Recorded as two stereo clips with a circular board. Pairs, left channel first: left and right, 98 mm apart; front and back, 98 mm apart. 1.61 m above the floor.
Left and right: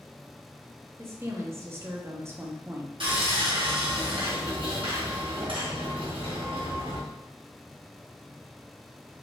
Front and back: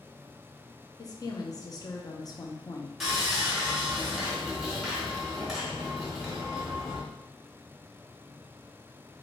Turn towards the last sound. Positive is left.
turn(degrees=-90)